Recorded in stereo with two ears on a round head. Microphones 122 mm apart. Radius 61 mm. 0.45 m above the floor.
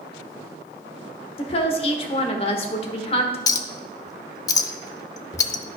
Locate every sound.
1.4 s a woman speaking: 45° left (ahead or behind), 1.2 m
3.5 s a clink: 25° left (ahead or behind), 0.5 m